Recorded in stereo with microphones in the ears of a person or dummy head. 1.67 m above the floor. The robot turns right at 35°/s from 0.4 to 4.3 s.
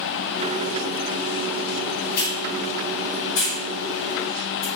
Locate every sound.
2.1 s a hiss: 50° left (ahead or behind), 5 m